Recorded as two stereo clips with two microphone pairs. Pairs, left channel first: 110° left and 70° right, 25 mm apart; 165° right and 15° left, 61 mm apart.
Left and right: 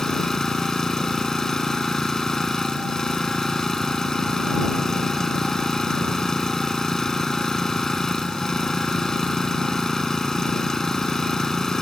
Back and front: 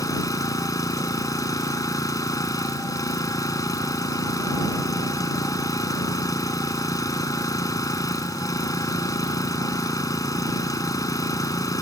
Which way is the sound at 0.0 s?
Straight behind.